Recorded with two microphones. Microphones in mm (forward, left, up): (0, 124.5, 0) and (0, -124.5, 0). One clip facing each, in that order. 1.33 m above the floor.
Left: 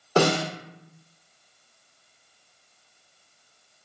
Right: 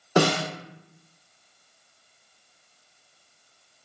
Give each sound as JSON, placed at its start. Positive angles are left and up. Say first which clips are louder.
{"t": 0.2, "sound": "a snare drum", "louder": "left 1 dB", "side_deg": -15, "distance_m": 1.4}